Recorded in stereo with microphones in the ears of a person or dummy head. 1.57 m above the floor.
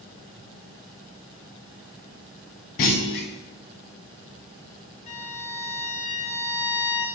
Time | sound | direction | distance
2.8 | a clunk | 45° left (ahead or behind) | 0.8 m
5.1 | a violin | 40° left (ahead or behind) | 0.9 m